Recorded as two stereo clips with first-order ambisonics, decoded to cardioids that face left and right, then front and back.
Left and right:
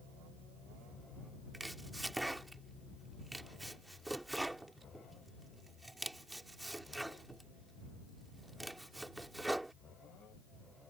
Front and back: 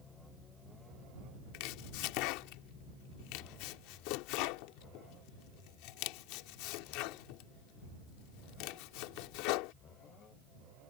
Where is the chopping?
5° right.